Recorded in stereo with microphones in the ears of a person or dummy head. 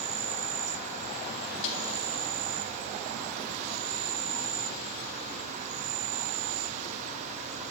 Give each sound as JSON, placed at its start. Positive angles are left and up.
{"t": 0.0, "sound": "an insect", "side_deg": -40, "distance_m": 0.7}
{"t": 1.6, "sound": "a snare drum", "side_deg": 75, "distance_m": 1.6}